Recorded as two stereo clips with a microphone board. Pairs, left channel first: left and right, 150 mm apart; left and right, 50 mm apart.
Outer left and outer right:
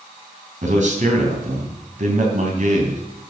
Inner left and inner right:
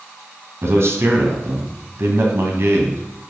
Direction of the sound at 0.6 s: 55° right (ahead or behind).